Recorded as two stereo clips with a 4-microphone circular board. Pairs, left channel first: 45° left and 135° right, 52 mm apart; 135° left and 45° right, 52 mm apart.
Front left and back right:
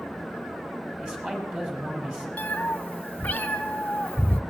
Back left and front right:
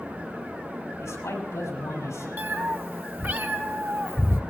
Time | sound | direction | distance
1.0 | a man speaking | 155° left | 6.5 m
2.4 | a cat meowing | 10° right | 0.9 m